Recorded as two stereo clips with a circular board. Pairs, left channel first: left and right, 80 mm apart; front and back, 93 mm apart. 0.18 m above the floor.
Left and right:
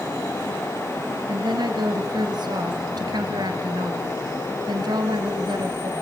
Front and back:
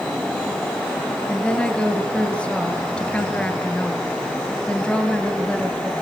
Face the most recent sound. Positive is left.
turn(degrees=-80)